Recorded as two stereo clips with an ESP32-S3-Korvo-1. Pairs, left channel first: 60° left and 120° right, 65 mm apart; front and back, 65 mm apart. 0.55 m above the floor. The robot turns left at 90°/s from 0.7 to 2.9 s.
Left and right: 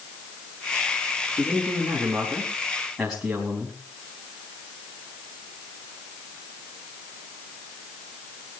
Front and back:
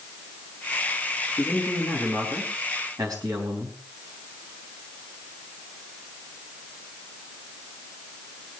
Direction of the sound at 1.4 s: 70° right.